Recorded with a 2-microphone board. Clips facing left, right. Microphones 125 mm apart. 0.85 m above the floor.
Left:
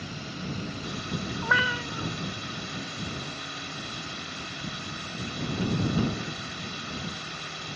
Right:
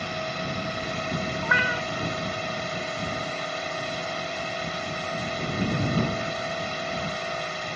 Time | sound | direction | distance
0.0 | a drone | 70° right (ahead or behind) | ?
1.4 | a cat meowing | 10° left (ahead or behind) | ?